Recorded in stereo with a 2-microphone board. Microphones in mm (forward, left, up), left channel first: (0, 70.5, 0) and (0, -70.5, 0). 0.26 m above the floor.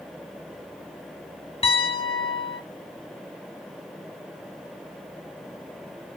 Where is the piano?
45° left (ahead or behind), 0.8 m.